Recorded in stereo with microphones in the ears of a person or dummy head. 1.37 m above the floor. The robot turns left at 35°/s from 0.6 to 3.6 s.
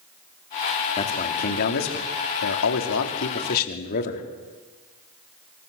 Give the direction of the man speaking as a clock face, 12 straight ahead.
7 o'clock.